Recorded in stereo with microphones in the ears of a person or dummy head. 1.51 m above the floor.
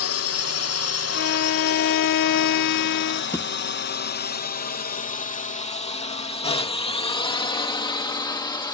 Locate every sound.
0.0 s a drone: 65° left (ahead or behind); by 8.8 s 10° left (ahead or behind)
1.1 s a violin: 45° left (ahead or behind)
3.3 s a thud: 20° left (ahead or behind)